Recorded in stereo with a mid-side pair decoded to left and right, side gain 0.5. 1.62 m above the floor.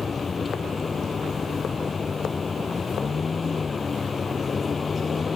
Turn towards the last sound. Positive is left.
turn(degrees=35)